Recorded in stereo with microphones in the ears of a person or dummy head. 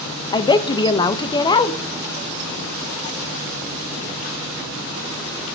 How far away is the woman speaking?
About 1.1 m.